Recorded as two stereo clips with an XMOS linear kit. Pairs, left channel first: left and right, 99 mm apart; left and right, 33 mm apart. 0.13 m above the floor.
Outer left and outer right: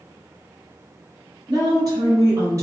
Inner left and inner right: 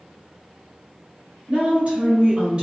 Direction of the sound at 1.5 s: 45° right (ahead or behind).